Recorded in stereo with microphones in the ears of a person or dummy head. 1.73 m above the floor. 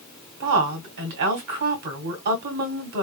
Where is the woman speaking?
45° right (ahead or behind), 0.9 m.